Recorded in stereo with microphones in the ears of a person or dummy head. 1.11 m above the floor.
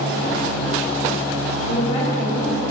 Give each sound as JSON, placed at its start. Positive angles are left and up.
{"t": 1.7, "sound": "a woman speaking", "side_deg": 40, "distance_m": 4.0}